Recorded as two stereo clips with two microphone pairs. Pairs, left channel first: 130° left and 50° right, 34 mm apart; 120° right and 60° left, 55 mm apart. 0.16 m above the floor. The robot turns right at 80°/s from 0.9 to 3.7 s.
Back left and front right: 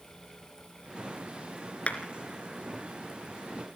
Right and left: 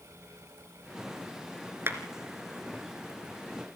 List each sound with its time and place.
1.9 s a clap: 90° left, 2.5 m; by 2.0 s 100° left, 2.5 m